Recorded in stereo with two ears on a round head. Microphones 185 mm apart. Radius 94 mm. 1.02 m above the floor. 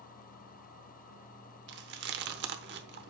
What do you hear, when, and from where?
1.7 s chewing: 55° right (ahead or behind), 0.9 m